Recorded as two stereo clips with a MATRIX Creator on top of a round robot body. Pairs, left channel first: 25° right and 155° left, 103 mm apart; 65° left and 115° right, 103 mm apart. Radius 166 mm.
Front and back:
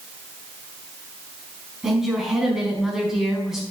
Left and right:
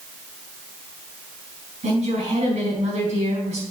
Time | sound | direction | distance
1.8 | a woman speaking | 115° right | 4.5 m